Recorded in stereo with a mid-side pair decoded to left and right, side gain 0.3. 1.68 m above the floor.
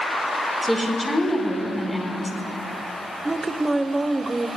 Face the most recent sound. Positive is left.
turn(degrees=-30)